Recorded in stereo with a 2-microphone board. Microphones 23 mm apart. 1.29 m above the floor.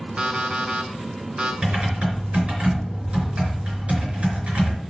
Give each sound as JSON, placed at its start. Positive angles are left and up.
{"t": 0.2, "sound": "an alarm clock", "side_deg": -55, "distance_m": 1.9}
{"t": 1.6, "sound": "typing on a keyboard", "side_deg": -65, "distance_m": 4.0}